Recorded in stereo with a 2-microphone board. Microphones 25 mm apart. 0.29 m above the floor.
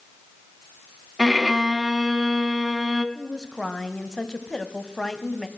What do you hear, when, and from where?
1.2 s a violin: 20° right (ahead or behind), 1.7 m
3.1 s a woman speaking: 30° left (ahead or behind), 2.0 m